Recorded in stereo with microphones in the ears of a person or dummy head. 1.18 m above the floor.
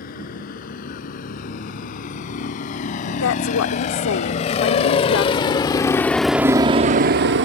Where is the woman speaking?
85° left.